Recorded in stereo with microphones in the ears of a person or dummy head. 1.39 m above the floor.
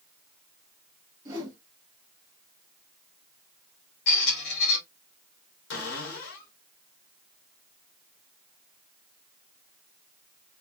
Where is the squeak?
65° left (ahead or behind), 1.7 m.